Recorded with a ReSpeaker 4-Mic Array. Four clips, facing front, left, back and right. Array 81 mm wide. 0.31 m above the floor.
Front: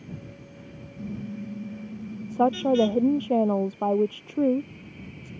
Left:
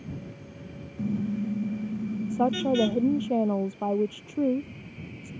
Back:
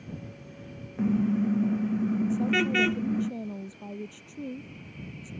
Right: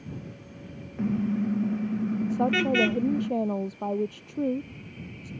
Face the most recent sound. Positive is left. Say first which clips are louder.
# left 1 dB, front 4 dB
turn(degrees=5)